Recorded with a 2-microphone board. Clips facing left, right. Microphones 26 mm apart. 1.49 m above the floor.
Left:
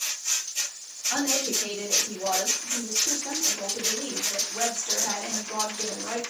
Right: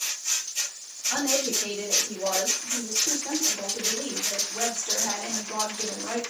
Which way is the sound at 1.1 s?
5° right (ahead or behind).